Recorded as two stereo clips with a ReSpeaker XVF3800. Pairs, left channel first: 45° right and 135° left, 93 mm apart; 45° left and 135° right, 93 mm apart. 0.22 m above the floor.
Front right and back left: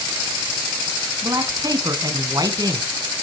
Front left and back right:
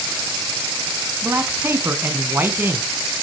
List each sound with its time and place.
1.2 s a man speaking: 165° left, 2.5 m